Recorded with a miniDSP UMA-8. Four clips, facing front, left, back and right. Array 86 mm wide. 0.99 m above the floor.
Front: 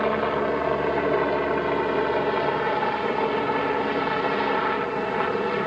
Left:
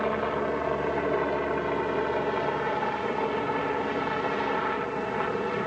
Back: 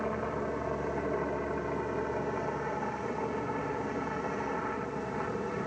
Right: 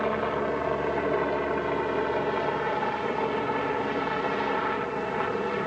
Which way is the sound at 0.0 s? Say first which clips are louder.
Even, front 10 dB; 5° right.